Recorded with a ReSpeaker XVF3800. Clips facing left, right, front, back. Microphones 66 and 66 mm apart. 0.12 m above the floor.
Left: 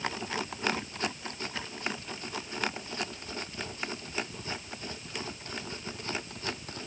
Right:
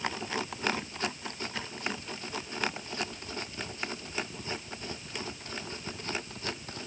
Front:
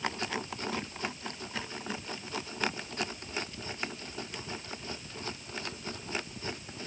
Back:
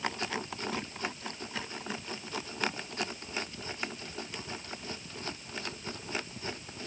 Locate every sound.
Only background noise.